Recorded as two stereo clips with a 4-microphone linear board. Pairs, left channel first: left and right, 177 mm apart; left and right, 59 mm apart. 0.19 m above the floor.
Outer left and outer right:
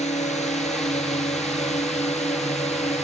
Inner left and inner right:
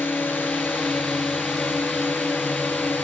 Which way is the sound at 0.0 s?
40° left (ahead or behind).